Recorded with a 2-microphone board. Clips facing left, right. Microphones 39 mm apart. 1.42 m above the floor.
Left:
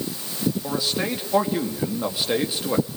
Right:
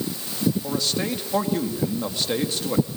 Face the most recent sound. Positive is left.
turn(degrees=10)  # may be behind; listen again after turning